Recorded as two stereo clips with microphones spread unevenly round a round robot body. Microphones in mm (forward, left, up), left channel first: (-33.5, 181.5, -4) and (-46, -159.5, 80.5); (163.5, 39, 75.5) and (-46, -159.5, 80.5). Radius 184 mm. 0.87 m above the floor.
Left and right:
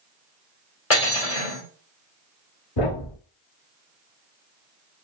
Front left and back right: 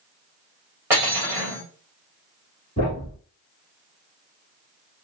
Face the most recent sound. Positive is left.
turn(degrees=115)